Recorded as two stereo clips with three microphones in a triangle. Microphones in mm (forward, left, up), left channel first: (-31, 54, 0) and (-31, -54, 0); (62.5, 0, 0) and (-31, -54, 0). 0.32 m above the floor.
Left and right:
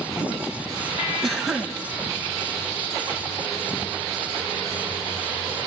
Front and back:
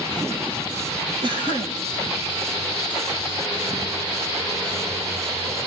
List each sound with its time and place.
1.2 s a cough: straight behind, 2 m